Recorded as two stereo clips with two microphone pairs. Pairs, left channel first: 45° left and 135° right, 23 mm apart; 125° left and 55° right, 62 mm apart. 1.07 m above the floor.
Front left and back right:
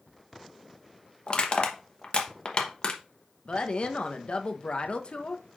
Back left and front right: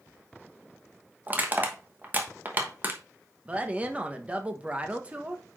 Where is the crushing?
5° left, 1.1 m.